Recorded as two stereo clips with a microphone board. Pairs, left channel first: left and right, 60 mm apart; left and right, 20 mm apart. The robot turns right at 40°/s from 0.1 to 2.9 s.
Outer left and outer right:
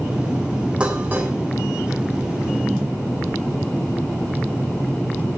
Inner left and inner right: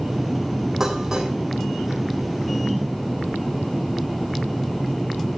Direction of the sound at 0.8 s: 20° right (ahead or behind).